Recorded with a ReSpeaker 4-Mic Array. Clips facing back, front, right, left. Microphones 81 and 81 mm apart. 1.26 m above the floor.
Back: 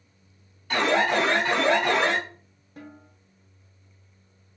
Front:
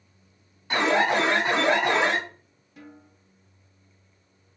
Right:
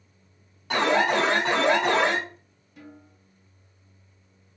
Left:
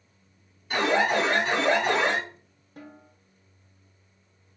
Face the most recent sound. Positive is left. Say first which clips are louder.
# back 2 dB, left 1 dB
turn(degrees=135)